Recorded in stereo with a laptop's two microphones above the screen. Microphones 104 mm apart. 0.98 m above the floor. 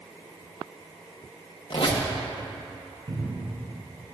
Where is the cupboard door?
60° right (ahead or behind), 2.5 m.